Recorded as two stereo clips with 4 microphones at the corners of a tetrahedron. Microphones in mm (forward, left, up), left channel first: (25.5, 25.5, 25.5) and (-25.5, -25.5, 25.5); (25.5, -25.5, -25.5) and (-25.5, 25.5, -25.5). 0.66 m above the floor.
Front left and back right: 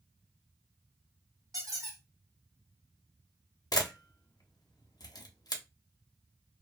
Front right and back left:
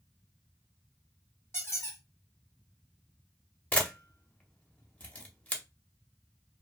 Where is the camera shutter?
25° left, 0.6 m.